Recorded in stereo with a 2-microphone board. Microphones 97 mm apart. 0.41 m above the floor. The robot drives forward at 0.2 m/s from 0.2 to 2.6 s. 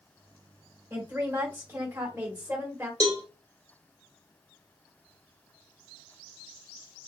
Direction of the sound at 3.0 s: 40° right (ahead or behind).